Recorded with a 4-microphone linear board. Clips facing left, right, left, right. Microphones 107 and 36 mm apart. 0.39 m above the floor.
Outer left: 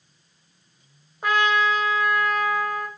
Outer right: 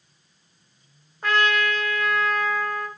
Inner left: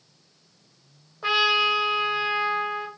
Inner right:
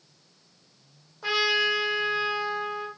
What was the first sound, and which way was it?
A trumpet, 15° left (ahead or behind).